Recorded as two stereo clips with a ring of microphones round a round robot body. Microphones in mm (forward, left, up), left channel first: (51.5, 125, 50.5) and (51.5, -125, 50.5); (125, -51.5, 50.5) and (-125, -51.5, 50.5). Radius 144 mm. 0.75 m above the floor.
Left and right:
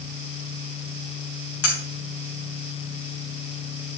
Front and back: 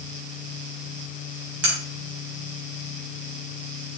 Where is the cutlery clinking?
130° left, 3.5 m.